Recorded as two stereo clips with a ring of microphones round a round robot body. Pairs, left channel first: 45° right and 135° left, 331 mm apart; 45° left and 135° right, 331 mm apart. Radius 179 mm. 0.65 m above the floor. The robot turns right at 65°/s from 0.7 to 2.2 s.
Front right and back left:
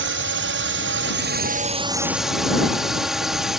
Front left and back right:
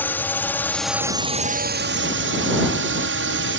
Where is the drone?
125° left; by 3.6 s 135° right.